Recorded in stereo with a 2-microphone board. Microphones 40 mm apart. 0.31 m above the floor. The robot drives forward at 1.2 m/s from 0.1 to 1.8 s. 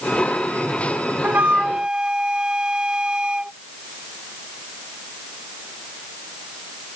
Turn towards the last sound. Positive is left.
turn(degrees=-25)  # may be behind; listen again after turning